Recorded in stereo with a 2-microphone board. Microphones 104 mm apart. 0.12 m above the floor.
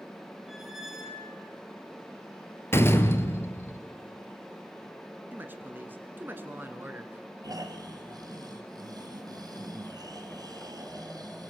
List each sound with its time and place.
0.5 s a squeak: 5° right (ahead or behind), 3 m
2.7 s a door slam: 25° left (ahead or behind), 1.6 m
5.3 s a woman speaking: 20° right (ahead or behind), 1.8 m
7.4 s snoring: 40° right (ahead or behind), 2 m